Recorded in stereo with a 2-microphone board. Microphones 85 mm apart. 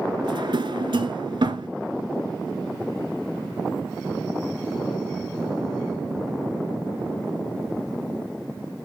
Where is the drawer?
70° right (ahead or behind), 0.9 m.